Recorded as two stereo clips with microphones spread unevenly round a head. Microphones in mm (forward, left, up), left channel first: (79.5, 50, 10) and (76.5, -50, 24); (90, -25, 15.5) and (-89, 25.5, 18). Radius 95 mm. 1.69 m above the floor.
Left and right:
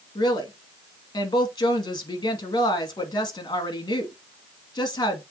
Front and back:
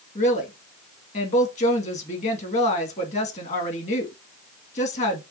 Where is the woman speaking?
40° left, 2 m.